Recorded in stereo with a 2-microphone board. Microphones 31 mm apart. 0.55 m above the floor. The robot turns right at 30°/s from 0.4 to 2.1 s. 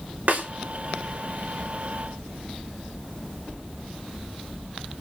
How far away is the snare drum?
About 4.5 m.